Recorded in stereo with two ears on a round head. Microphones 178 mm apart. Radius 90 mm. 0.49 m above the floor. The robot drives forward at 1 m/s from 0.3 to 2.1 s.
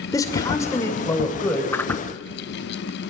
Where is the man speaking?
20° left (ahead or behind), 2 m; by 1.6 s 10° left (ahead or behind), 3 m.